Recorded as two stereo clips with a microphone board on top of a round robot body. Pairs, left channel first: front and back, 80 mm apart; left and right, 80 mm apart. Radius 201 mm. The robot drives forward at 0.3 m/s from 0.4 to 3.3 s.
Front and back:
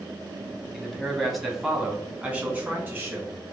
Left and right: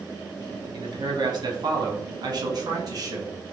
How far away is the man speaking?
About 1.2 m.